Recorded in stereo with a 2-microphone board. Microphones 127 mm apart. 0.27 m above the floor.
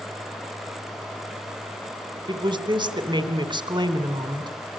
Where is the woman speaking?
40° right (ahead or behind), 2.5 m.